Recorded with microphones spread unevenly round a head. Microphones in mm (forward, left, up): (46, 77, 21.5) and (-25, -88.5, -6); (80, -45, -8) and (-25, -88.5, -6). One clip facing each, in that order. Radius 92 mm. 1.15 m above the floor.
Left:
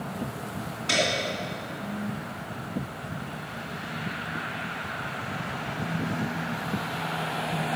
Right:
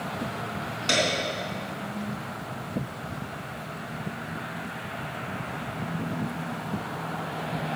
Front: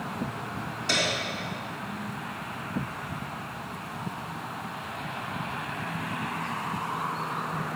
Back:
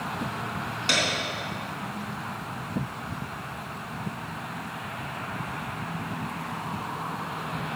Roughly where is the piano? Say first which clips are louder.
Right 1 dB, back 1 dB; behind right.